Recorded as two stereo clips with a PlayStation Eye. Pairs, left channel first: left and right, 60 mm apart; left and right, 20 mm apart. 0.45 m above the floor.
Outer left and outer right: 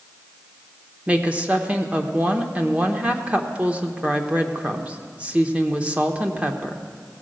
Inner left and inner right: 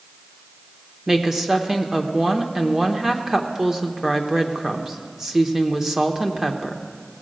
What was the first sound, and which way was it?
A woman speaking, 20° right (ahead or behind).